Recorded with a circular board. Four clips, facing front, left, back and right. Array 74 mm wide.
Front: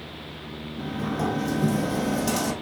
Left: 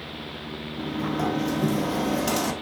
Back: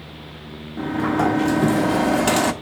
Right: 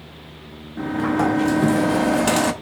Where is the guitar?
No guitar in this recording.